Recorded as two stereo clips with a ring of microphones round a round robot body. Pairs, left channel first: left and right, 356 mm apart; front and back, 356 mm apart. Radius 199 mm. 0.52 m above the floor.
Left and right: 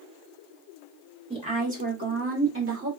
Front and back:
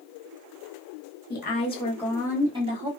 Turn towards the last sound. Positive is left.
turn(degrees=-120)